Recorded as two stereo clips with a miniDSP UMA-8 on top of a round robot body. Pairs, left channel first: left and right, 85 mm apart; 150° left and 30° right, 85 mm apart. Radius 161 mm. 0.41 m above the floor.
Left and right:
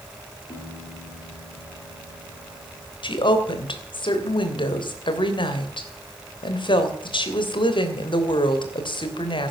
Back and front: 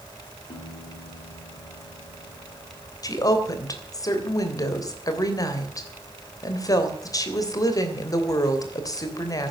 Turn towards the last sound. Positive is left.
turn(degrees=105)